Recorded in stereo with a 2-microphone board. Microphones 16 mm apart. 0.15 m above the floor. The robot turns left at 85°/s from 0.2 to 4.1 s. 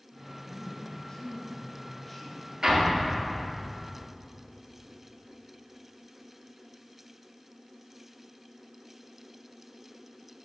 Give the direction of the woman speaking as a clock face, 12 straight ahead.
7 o'clock.